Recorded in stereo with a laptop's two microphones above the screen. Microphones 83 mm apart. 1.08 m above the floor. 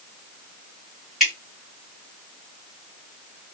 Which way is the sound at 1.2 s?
Centre (ahead or behind).